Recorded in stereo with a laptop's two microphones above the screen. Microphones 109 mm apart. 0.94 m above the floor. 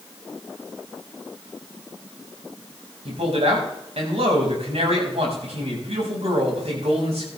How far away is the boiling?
No boiling in this recording.